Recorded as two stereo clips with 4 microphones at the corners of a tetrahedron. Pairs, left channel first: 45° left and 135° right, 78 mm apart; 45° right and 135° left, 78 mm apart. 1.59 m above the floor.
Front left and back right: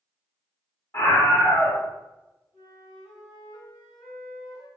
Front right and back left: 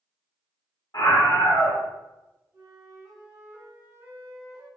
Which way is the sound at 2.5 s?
80° left.